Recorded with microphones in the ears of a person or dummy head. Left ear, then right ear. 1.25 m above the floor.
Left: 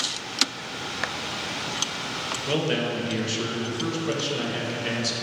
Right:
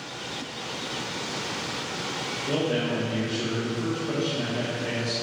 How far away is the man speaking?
About 1.3 m.